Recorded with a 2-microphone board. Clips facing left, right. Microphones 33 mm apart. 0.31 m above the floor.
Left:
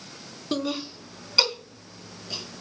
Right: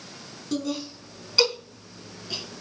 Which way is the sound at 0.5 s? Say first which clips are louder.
Left 1 dB; 45° left (ahead or behind).